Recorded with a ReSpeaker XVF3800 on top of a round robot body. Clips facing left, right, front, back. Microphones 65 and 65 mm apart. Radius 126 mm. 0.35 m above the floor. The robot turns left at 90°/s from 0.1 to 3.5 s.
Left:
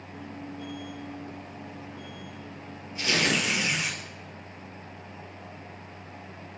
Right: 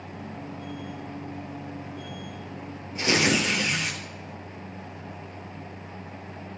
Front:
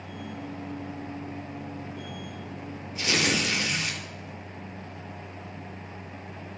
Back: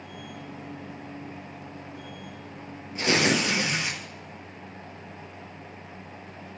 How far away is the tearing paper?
About 3.5 m.